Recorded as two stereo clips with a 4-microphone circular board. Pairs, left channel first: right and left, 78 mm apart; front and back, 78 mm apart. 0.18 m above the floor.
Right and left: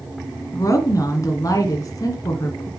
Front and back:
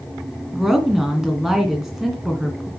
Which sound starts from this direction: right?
A woman speaking, at 0.5 s.